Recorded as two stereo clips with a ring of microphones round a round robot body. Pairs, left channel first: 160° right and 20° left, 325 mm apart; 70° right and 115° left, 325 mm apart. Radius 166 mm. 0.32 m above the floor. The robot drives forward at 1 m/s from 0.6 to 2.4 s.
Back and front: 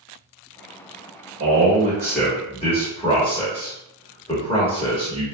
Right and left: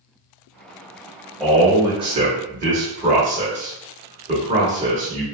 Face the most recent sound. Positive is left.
turn(degrees=145)